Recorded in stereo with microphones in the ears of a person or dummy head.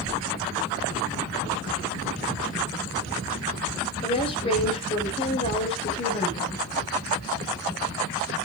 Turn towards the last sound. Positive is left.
turn(degrees=30)  # may be behind; listen again after turning